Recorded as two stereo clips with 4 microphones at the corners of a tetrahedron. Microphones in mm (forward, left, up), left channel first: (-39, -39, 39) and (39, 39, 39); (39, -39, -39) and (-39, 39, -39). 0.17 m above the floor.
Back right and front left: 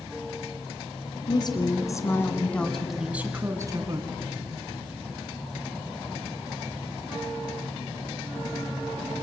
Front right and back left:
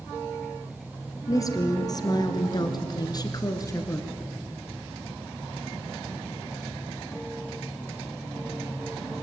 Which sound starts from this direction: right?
A woman speaking, at 1.3 s.